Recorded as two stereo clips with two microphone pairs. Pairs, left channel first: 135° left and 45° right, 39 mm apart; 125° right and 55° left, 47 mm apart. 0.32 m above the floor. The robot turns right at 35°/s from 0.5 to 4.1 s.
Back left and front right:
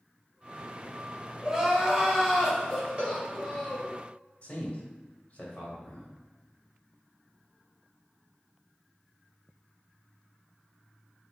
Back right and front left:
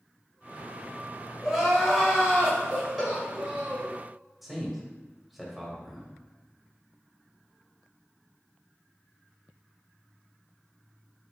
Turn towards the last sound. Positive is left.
turn(degrees=145)